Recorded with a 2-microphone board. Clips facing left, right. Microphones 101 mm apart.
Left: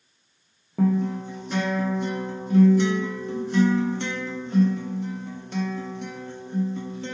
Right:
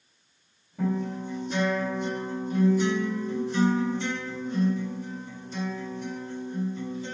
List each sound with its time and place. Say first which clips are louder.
0.8 s a guitar: left 6 dB; 75° left (ahead or behind), 0.8 m